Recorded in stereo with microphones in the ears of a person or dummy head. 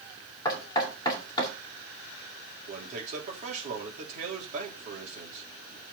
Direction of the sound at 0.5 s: 20° left (ahead or behind).